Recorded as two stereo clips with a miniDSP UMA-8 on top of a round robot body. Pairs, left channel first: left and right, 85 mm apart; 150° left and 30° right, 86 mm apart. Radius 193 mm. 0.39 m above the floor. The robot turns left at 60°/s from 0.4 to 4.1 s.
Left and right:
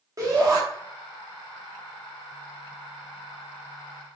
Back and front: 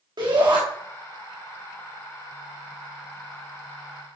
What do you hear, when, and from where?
0.2 s a shout: 50° right, 3.5 m; by 0.6 s 60° right, 3.5 m